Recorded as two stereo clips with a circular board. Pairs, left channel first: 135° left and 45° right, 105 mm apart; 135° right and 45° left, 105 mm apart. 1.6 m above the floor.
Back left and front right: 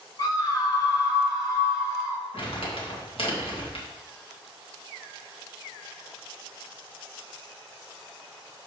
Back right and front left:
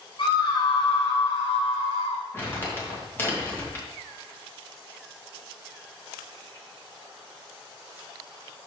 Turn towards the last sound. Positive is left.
turn(degrees=160)